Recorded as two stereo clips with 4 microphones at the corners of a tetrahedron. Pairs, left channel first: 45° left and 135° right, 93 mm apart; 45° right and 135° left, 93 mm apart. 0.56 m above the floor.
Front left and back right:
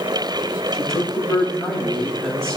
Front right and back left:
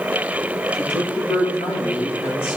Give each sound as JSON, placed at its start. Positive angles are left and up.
{"t": 0.7, "sound": "a man speaking", "azimuth_deg": -40, "distance_m": 8.0}